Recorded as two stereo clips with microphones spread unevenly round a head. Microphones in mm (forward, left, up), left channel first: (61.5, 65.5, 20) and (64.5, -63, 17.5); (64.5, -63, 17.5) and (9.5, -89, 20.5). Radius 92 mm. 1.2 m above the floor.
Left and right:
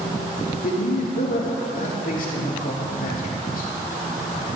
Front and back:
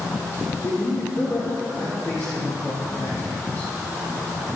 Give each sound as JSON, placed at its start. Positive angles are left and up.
{"t": 0.6, "sound": "a man speaking", "azimuth_deg": 85, "distance_m": 2.0}